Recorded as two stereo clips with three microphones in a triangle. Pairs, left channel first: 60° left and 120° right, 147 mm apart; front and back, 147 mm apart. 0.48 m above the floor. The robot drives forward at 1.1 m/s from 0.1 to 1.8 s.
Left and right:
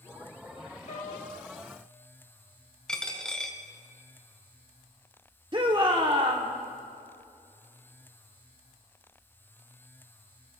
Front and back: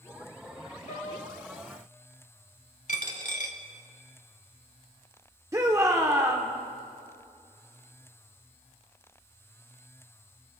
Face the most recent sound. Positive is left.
turn(degrees=-130)